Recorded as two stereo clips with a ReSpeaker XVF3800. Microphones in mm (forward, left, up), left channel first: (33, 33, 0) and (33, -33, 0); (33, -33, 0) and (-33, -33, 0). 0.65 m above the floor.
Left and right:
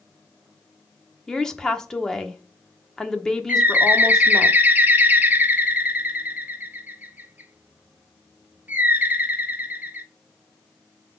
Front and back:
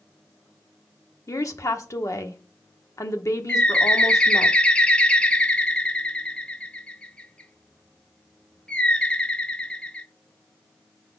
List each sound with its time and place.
1.3 s a woman speaking: 10° left, 1.0 m
3.5 s a bird: 60° right, 0.6 m